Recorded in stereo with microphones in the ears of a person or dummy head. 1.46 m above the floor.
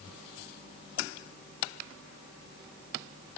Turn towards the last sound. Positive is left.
No sound to turn to.